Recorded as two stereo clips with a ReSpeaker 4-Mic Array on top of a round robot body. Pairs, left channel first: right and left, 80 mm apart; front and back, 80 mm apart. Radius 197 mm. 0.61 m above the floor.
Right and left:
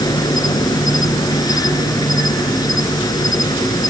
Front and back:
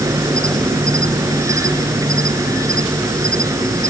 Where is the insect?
130° right.